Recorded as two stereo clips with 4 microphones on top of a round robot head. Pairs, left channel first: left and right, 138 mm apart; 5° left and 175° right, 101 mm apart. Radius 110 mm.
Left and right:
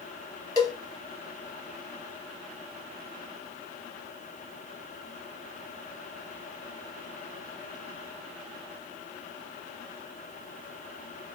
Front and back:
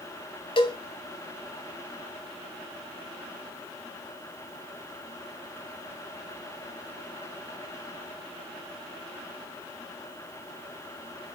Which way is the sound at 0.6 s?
35° left.